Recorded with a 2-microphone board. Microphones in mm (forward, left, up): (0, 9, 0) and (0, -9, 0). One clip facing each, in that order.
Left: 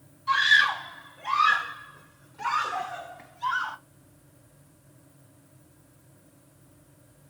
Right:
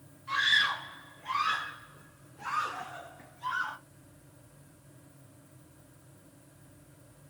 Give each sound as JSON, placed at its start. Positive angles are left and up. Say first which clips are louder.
{"t": 0.3, "sound": "a scream", "louder": "left 6 dB", "side_deg": 80, "distance_m": 3.5}